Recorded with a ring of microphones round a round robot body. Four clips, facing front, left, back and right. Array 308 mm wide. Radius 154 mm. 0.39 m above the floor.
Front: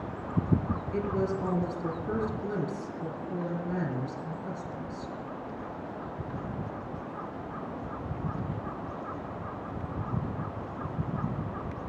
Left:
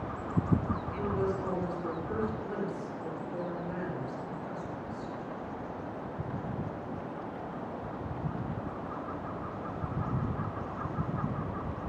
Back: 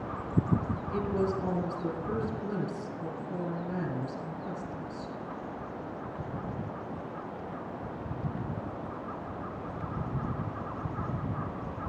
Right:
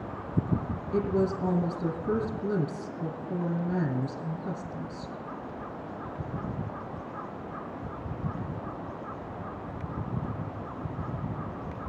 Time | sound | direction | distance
0.9 | a woman speaking | 85° right | 3 m